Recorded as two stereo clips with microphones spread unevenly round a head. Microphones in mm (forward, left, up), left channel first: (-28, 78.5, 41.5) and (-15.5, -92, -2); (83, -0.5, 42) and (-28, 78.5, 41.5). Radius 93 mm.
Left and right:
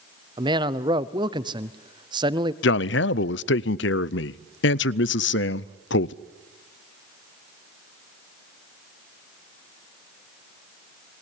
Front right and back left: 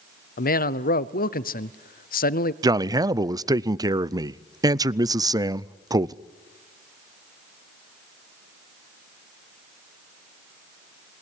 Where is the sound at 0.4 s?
20° right, 0.8 m.